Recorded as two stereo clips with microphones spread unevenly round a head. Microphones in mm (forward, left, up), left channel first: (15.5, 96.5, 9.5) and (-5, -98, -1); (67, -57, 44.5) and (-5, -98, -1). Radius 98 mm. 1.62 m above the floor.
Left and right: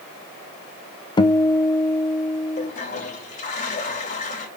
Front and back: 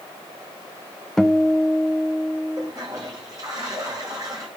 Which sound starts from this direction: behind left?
A toilet flushing, at 2.6 s.